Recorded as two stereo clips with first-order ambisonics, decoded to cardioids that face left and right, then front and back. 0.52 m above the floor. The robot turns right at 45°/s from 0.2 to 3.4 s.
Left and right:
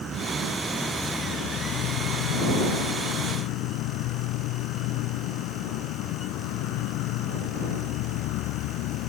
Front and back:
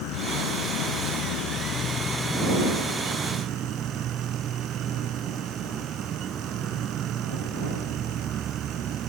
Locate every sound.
0.0 s an insect: 25° right; by 9.1 s 120° left